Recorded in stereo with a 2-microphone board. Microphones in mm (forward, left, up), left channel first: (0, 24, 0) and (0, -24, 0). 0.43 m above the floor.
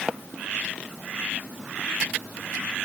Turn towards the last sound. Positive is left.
No sound to turn to.